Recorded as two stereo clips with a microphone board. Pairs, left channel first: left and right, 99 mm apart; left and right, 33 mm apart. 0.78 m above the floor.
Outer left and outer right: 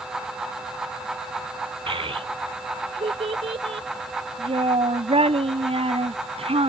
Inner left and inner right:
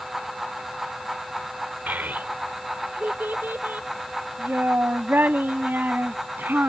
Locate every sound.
1.9 s a child speaking: 70° right (ahead or behind); by 6.7 s 80° right